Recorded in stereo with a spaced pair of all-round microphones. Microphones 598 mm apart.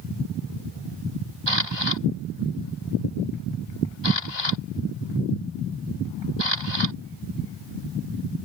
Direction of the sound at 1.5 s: 45° right (ahead or behind).